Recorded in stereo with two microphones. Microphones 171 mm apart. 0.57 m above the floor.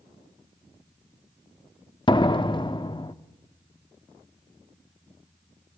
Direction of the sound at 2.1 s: 30° left (ahead or behind).